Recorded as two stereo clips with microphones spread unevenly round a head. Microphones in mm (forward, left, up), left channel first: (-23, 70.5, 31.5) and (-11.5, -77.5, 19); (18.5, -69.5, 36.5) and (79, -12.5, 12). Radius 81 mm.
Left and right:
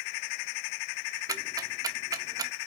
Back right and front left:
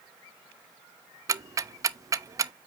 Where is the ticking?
15° right, 0.6 m.